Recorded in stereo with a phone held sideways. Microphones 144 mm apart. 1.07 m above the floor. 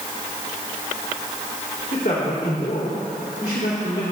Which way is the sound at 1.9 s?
85° left.